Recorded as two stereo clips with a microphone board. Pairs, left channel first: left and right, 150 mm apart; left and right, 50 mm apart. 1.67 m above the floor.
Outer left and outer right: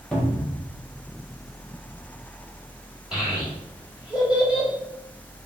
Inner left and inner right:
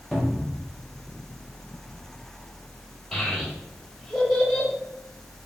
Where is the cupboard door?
5° left (ahead or behind), 0.8 m.